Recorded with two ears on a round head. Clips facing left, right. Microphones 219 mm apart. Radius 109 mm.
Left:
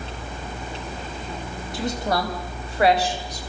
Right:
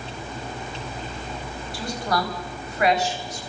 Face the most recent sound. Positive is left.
turn(degrees=35)  # may be behind; listen again after turning